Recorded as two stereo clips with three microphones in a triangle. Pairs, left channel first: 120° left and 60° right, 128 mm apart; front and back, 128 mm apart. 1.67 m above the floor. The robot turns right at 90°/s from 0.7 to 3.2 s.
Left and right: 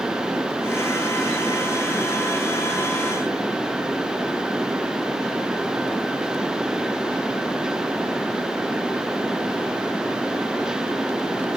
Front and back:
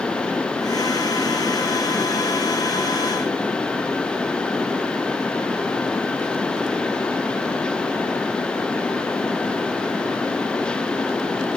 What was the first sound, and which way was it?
Only background noise.